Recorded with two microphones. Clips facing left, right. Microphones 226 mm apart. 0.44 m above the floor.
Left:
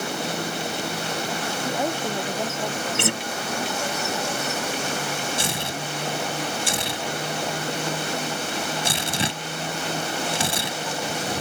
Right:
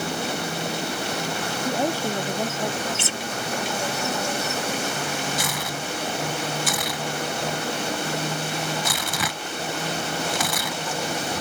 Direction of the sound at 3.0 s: 65° left (ahead or behind).